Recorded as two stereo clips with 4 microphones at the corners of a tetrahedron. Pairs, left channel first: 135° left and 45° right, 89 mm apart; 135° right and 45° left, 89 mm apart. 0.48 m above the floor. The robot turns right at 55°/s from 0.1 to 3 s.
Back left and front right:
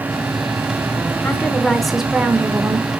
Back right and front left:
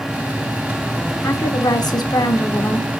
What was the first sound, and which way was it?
A woman speaking, 170° right.